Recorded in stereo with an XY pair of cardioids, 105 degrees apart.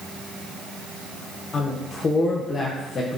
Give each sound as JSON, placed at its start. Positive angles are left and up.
{"t": 1.5, "sound": "a woman speaking", "azimuth_deg": 45, "distance_m": 0.7}